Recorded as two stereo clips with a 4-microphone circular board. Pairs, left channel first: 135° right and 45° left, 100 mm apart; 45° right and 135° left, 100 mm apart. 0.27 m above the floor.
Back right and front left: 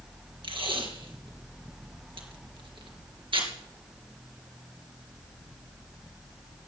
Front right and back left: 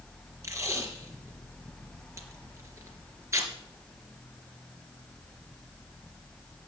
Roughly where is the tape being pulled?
Left.